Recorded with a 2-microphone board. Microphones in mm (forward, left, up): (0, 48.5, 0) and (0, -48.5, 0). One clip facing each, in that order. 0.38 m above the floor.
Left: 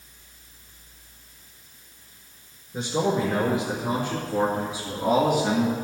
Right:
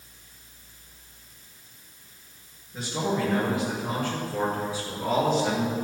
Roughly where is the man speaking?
Left.